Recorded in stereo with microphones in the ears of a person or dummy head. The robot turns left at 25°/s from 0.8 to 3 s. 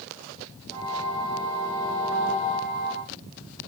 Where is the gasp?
No gasp in this recording.